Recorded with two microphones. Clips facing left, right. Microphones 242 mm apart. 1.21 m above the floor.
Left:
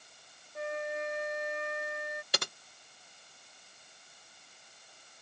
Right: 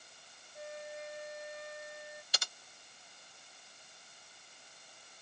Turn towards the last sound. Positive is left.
turn(degrees=65)  # may be behind; listen again after turning